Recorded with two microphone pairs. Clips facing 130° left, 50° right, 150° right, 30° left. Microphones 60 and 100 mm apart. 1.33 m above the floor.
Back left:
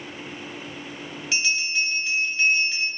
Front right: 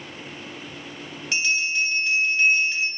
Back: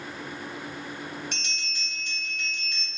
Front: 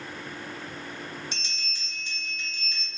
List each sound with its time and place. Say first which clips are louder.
1.3 s a bell: front right 2 dB, back 2 dB; 145° right, 0.9 m